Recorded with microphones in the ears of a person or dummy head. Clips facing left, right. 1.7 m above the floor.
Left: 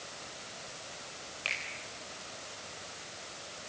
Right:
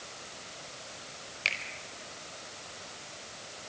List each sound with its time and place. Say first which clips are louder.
1.4 s a finger snap: right 2 dB; 35° right (ahead or behind), 5 m